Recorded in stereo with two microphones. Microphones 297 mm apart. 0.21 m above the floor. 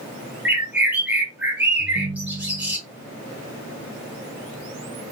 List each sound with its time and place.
0.5 s a bird: 5° right (ahead or behind), 1.2 m
1.8 s a ringtone: 30° right (ahead or behind), 1.1 m